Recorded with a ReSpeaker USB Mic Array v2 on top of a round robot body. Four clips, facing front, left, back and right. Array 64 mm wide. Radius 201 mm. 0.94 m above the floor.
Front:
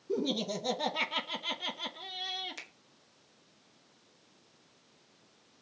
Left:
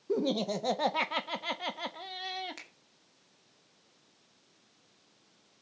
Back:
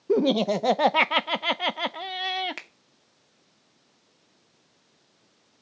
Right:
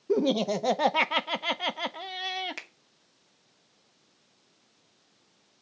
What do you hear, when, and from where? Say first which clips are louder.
0.1 s laughter: right 5 dB, back 11 dB; 160° right, 0.8 m
2.6 s a finger snap: right 7 dB, back 6 dB; 155° right, 2.5 m